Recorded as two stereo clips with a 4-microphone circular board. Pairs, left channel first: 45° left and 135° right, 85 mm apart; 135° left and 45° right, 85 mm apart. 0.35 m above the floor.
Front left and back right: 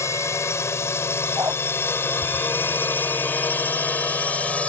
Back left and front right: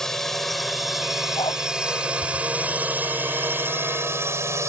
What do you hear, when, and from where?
0.0 s a drone: 55° left; by 4.7 s 20° right
1.4 s a dog barking: 165° left